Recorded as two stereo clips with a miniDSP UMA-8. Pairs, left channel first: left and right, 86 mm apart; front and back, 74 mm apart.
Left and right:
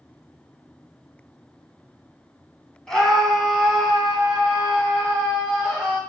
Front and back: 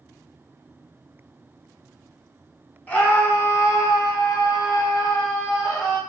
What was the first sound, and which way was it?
A scream, 20° left.